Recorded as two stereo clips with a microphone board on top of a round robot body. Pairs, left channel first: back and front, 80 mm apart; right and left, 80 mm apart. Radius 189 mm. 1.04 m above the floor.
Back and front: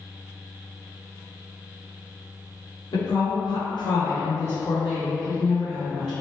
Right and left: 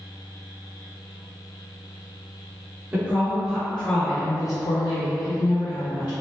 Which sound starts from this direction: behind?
A woman speaking, at 2.9 s.